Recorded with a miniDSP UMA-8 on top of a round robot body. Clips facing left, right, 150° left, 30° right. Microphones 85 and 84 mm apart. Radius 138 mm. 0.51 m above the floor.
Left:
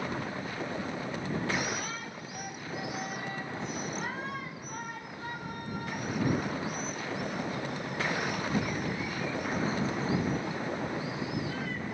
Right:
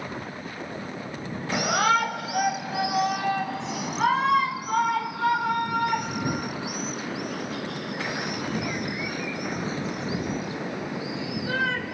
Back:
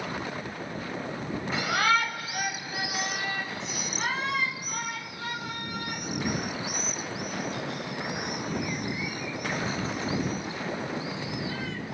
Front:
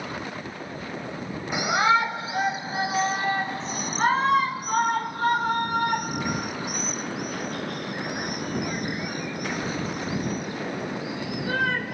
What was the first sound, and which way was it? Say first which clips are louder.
A shout: right 12 dB, front 4 dB; 105° right.